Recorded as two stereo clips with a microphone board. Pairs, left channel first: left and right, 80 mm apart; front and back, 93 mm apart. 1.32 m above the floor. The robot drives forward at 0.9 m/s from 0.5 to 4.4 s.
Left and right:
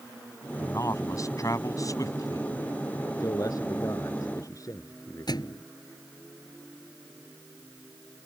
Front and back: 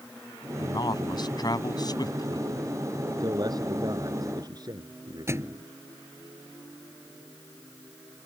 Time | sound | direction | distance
0.6 | a man speaking | 40° left | ?
3.2 | a man speaking | 135° left | ?
5.3 | a thud | 120° left | ?